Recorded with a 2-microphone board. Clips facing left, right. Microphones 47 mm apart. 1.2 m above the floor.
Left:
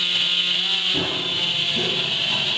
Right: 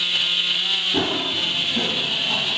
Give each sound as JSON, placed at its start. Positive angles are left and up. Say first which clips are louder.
{"t": 0.9, "sound": "running footsteps", "louder": "right 2 dB", "side_deg": -50, "distance_m": 3.5}